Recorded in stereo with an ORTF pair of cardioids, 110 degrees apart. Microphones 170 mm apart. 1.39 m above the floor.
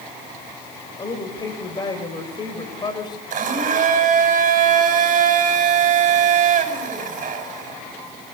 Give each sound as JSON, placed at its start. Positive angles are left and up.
{"t": 1.0, "sound": "a woman speaking", "azimuth_deg": 25, "distance_m": 6.5}
{"t": 3.3, "sound": "a blender", "azimuth_deg": -50, "distance_m": 9.0}